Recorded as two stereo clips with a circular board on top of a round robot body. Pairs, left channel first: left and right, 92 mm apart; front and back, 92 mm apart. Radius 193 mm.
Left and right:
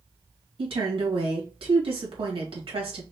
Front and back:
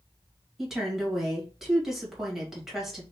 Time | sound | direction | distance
0.6 | a woman speaking | 95° right | 2.5 m